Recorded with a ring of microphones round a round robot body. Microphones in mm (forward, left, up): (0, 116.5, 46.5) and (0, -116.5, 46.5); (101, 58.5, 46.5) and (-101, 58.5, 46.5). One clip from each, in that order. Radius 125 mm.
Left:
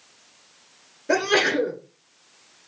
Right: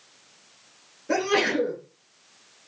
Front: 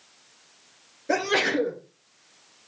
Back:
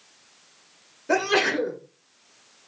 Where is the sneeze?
105° left, 2.0 m.